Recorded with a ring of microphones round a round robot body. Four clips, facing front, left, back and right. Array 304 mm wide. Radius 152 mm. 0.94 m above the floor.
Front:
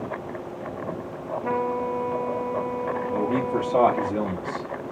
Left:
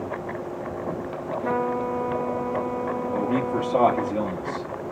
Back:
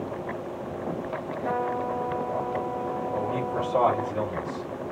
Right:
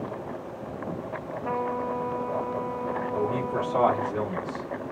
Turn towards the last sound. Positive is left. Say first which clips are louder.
# left 4 dB, front 6 dB
turn(degrees=40)